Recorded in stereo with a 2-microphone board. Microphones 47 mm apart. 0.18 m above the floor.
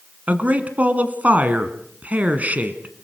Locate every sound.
0.3 s a man speaking: 35° right (ahead or behind), 1.6 m